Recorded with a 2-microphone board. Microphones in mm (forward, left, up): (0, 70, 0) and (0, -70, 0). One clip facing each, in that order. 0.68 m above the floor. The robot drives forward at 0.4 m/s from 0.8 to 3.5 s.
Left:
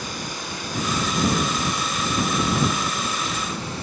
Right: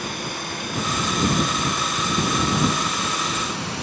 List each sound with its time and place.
0.0 s running water: 55° right (ahead or behind), 3 m; by 3.8 s 75° right (ahead or behind), 2.5 m